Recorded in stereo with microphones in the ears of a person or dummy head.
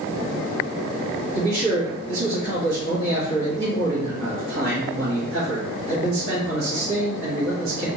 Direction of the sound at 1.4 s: 70° right (ahead or behind).